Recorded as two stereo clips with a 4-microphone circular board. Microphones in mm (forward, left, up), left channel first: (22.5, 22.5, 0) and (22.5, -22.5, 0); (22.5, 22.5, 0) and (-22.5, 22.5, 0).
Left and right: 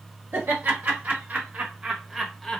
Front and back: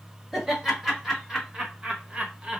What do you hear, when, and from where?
0.3 s laughter: 100° right, 1.3 m; by 2.6 s 155° left, 0.8 m